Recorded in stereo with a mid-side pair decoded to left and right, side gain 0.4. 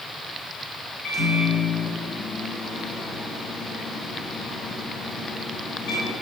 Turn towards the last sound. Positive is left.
turn(degrees=70)